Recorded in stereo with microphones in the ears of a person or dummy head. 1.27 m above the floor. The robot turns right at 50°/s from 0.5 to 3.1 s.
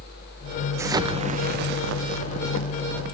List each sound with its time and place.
0.8 s an explosion: 165° right, 1.0 m; by 3.1 s 50° right, 1.0 m